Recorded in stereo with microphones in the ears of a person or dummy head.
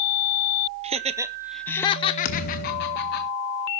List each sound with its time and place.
0.8 s laughter: 35° right (ahead or behind), 0.6 m; by 3.2 s 55° left (ahead or behind), 1.0 m
2.2 s a thud: 50° left (ahead or behind), 1.2 m